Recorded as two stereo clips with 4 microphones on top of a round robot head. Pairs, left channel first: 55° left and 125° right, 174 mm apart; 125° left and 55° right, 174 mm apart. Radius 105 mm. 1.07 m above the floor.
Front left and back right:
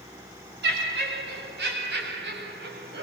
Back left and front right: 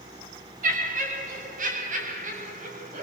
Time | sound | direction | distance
0.6 | laughter | 95° right | 9.5 m